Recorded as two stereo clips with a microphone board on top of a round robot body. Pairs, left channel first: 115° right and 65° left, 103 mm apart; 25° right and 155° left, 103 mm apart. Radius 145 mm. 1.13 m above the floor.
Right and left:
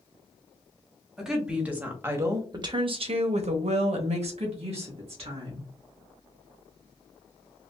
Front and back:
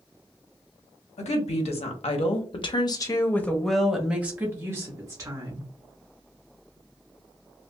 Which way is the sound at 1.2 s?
20° right.